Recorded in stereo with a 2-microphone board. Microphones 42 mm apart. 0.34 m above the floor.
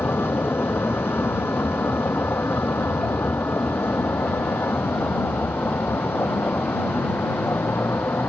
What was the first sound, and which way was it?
A vehicle, 65° left (ahead or behind).